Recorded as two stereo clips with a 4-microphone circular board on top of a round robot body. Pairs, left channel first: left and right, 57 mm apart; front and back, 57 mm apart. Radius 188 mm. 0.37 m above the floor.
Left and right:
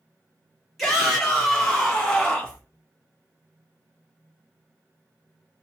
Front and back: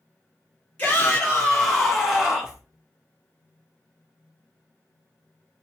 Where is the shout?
10° left, 1.4 m; by 2.6 s 135° left, 1.4 m.